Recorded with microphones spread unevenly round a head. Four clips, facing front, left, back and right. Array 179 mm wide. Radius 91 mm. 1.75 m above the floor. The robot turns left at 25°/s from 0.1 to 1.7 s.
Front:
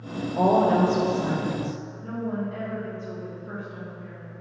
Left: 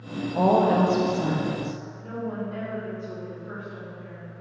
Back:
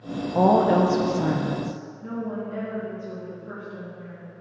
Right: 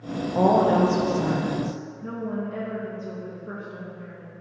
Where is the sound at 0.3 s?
150° right, 1.2 m; by 1.8 s straight behind, 1.2 m.